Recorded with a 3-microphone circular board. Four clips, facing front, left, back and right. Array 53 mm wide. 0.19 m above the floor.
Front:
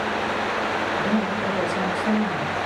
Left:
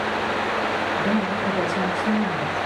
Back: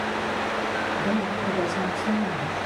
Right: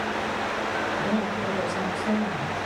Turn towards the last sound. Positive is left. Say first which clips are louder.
# left 4 dB, front 2 dB
turn(degrees=70)